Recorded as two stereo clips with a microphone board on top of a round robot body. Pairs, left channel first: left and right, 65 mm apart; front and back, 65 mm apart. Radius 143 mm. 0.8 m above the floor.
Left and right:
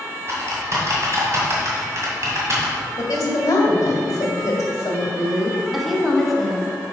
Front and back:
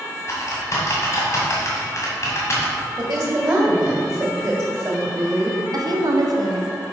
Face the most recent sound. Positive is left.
turn(degrees=180)